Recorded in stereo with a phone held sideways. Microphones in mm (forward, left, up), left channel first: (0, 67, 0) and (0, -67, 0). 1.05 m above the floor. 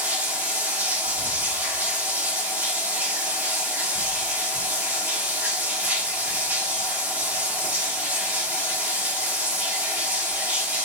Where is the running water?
15° right (ahead or behind), 1.3 m.